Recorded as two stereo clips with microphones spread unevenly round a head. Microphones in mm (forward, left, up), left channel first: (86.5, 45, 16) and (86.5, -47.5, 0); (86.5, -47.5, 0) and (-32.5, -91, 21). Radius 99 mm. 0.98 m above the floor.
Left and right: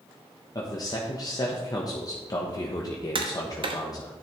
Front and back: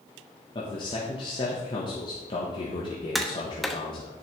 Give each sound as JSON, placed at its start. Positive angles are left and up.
{"t": 0.6, "sound": "a man speaking", "azimuth_deg": 45, "distance_m": 1.2}
{"t": 3.1, "sound": "tapping", "azimuth_deg": -70, "distance_m": 1.1}